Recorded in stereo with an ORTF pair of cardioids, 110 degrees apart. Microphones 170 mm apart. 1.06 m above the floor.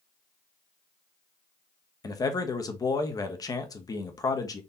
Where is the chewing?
I don't hear chewing.